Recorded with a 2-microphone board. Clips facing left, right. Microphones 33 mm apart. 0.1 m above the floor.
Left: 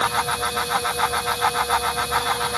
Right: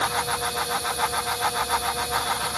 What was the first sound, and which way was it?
Only background noise.